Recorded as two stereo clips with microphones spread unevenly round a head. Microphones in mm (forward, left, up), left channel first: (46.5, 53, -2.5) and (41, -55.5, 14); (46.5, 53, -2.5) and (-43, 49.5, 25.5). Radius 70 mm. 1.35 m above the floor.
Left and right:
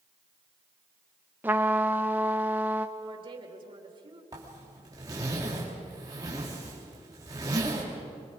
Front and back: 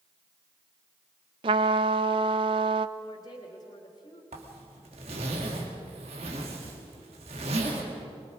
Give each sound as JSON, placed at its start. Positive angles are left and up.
{"t": 1.4, "sound": "a trumpet", "azimuth_deg": -165, "distance_m": 0.5}
{"t": 3.0, "sound": "a woman speaking", "azimuth_deg": -55, "distance_m": 3.0}
{"t": 4.3, "sound": "a zipper", "azimuth_deg": -160, "distance_m": 2.5}